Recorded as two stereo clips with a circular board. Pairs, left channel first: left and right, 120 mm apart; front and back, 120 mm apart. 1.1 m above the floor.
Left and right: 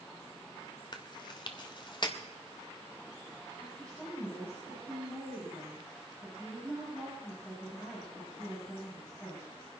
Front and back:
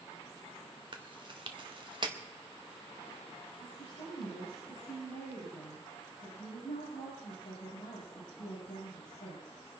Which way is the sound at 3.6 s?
10° left.